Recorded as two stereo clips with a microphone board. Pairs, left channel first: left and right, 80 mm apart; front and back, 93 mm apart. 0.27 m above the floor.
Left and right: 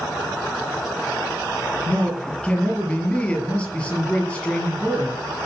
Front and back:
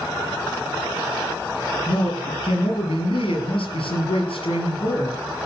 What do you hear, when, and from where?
1.9 s a man speaking: 15° left, 5 m